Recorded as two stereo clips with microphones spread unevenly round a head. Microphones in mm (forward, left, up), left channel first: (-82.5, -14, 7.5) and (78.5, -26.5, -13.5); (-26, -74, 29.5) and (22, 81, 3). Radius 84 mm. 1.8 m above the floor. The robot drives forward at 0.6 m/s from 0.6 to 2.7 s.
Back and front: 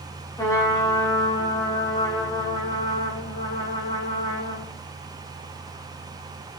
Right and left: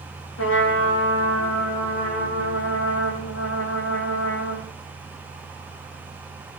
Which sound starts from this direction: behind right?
A trumpet, at 0.4 s.